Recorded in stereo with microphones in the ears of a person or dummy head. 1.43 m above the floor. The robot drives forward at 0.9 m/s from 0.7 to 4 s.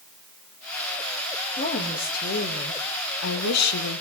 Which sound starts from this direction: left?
A woman speaking, at 1.5 s.